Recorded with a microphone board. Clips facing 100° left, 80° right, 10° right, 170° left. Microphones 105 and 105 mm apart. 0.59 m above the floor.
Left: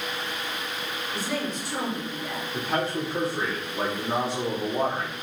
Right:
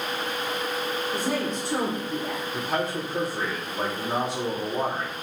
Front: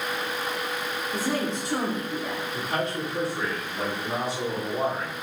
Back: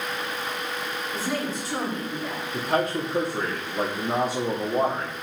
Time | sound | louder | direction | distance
1.1 | a woman speaking | right 1 dB, front 2 dB | 55° right | 1.9 m
2.5 | a man speaking | left 2 dB, back 6 dB | 175° right | 1.7 m